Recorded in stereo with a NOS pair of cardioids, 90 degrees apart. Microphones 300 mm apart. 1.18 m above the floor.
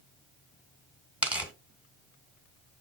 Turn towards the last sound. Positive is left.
turn(degrees=-5)